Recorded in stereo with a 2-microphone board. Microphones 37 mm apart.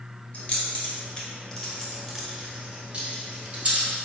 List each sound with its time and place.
0.3 s keys jangling: 40° left (ahead or behind), 1.3 m; by 3.9 s 40° right (ahead or behind), 1.6 m